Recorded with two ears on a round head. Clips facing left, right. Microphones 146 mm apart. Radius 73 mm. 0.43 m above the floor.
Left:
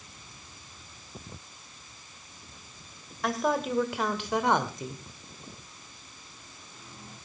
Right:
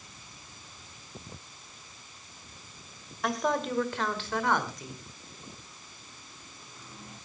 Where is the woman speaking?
Centre (ahead or behind), 2 m; by 5.0 s 25° left (ahead or behind), 1.8 m.